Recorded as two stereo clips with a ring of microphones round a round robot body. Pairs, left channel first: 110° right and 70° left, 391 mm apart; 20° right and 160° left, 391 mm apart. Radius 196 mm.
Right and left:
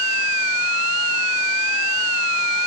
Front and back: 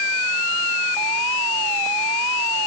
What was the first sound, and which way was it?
Only background noise.